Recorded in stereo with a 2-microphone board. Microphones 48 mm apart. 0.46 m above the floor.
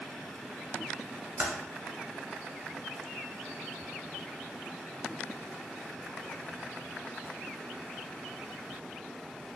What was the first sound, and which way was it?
Typing on a keyboard, 55° right (ahead or behind).